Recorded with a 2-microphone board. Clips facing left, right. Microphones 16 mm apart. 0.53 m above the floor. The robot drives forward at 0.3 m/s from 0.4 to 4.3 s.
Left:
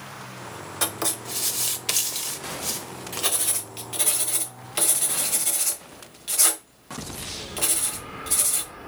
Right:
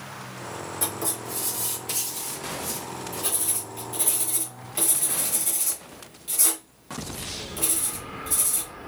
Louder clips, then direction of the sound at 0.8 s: Left 5 dB; 60° left (ahead or behind).